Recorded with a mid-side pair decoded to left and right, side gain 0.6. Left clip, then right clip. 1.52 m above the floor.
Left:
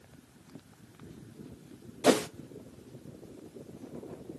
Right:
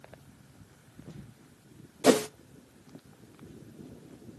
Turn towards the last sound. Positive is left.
turn(degrees=-15)